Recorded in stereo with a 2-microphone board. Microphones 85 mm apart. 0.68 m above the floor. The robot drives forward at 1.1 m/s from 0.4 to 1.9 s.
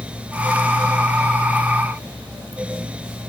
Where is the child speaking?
I don't hear a child speaking.